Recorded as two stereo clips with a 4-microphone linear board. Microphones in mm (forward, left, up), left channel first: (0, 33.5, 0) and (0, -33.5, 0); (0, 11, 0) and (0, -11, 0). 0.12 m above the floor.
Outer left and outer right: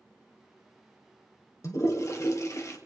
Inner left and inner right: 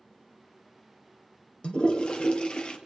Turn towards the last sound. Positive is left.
turn(degrees=55)  # may be behind; listen again after turning